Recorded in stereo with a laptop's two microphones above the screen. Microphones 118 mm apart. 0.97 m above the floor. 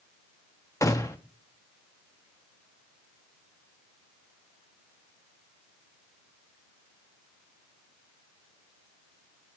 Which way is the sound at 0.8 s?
25° left (ahead or behind).